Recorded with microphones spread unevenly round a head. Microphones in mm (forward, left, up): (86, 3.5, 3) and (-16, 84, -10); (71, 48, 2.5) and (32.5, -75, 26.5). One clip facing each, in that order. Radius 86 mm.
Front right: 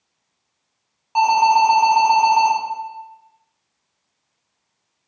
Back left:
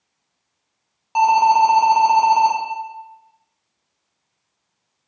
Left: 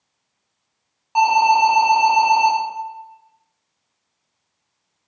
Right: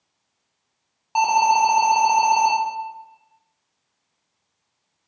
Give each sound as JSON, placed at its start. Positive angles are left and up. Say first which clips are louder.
{"t": 1.1, "sound": "an alarm", "louder": "back left 1 dB, left 3 dB", "azimuth_deg": -175, "distance_m": 0.7}